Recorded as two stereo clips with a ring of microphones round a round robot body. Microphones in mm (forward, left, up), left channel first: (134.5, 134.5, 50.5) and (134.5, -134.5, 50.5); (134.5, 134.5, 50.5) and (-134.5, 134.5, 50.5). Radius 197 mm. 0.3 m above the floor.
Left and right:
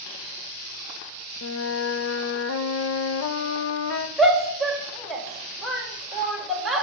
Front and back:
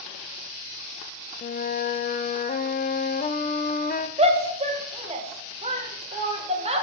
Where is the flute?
60° left, 0.6 m.